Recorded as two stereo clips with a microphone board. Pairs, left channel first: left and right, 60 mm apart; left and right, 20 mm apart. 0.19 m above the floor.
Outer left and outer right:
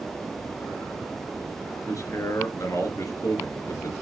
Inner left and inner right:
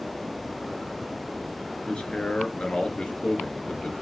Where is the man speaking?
60° left (ahead or behind), 2.5 m.